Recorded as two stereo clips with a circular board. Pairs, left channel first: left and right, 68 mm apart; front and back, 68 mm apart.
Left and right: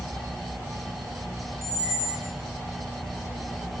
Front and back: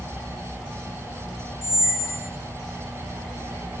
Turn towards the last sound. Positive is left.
turn(degrees=-50)